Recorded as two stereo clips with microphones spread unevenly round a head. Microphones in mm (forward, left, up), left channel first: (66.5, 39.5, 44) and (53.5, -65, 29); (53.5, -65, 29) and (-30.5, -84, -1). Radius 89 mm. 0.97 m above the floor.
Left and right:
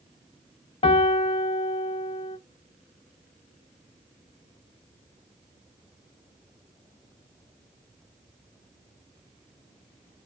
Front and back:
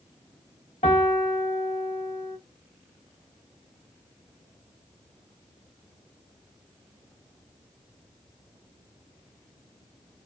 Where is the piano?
45° left, 0.6 m.